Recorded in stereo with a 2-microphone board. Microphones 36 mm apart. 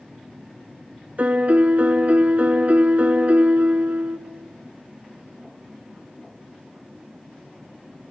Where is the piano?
45° right (ahead or behind), 0.7 m.